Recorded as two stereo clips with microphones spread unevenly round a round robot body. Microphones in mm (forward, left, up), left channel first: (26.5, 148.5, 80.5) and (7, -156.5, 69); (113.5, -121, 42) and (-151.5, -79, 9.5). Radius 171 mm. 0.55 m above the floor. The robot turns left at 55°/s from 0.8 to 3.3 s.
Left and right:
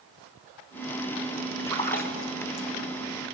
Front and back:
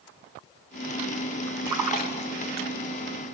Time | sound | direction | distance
1.7 | a splash | 170° left | 2.5 m